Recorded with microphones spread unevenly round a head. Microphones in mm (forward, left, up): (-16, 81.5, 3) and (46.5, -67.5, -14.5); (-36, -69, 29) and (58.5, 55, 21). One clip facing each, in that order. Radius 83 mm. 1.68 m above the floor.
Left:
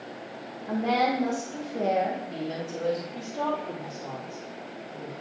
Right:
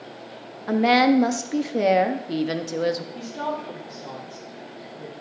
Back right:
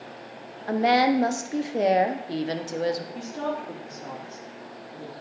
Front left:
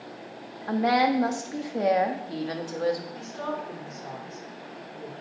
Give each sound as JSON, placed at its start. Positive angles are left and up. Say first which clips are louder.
{"t": 0.7, "sound": "a woman speaking", "louder": "right 7 dB, back right 2 dB", "azimuth_deg": -65, "distance_m": 0.9}
{"t": 3.1, "sound": "a woman speaking", "louder": "even, back right 3 dB", "azimuth_deg": -160, "distance_m": 2.5}